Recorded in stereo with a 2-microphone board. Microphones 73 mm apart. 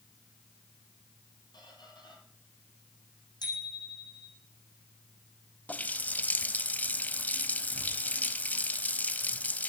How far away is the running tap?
About 1.0 m.